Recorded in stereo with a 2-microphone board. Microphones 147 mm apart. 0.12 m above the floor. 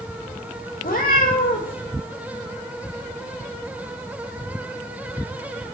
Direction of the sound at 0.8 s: 75° left (ahead or behind).